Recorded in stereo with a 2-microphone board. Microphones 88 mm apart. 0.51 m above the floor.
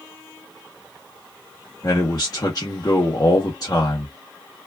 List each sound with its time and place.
1.8 s a man speaking: 45° left (ahead or behind), 0.9 m